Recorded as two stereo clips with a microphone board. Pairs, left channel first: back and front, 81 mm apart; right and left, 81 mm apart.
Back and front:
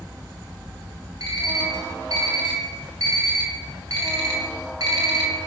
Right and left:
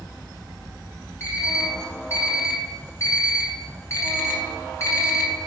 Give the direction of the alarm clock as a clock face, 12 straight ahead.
1 o'clock.